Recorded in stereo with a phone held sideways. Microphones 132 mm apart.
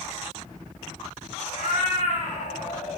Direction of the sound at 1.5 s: 70° left (ahead or behind).